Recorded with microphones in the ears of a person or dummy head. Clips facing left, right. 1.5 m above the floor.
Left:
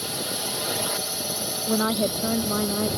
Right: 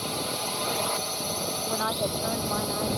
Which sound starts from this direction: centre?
A drone, at 0.0 s.